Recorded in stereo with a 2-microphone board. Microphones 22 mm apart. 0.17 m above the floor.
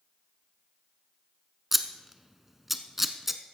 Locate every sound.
1.7 s scissors: 10° right (ahead or behind), 0.8 m